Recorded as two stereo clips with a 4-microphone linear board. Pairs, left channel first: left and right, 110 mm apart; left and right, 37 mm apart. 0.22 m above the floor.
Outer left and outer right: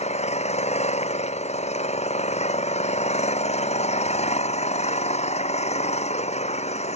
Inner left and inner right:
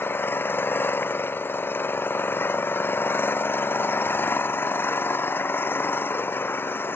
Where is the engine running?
80° left.